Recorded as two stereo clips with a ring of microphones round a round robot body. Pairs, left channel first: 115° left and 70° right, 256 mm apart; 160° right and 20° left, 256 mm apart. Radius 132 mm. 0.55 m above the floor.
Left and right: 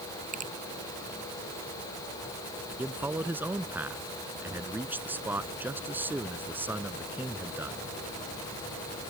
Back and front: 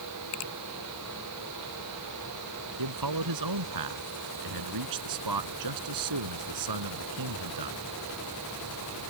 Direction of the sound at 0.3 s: 130° right.